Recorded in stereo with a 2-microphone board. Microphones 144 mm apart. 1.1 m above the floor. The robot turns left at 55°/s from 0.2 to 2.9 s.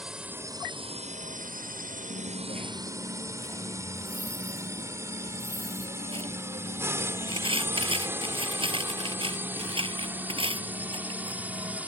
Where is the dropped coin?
95° right; by 11.8 s 140° right.